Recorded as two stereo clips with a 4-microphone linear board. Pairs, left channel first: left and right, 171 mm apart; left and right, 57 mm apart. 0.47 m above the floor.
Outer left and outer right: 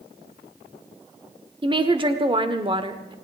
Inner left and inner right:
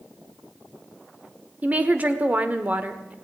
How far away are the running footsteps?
I don't hear running footsteps.